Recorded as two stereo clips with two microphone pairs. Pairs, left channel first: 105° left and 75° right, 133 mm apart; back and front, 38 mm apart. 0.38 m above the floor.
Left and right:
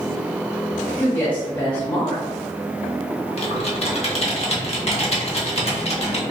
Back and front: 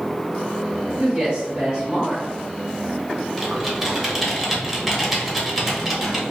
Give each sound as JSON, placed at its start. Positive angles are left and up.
{"t": 1.0, "sound": "a woman speaking", "azimuth_deg": 35, "distance_m": 1.5}
{"t": 3.4, "sound": "typing on a keyboard", "azimuth_deg": 90, "distance_m": 0.7}